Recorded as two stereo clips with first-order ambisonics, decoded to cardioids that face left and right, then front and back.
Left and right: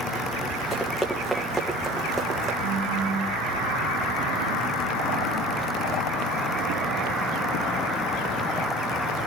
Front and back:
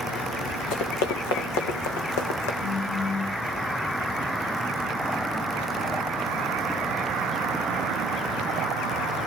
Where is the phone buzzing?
55° right, 3.5 m.